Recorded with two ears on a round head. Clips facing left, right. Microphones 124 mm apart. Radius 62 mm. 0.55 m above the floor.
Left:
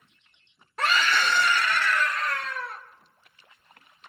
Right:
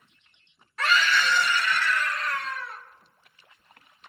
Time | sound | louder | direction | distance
0.8 | a scream | even | 30° left (ahead or behind) | 2 m